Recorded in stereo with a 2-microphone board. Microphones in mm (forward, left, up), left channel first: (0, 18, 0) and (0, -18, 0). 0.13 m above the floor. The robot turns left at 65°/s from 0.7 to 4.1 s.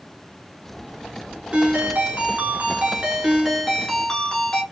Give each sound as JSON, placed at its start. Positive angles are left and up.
{"t": 1.5, "sound": "a ringtone", "azimuth_deg": -45, "distance_m": 1.0}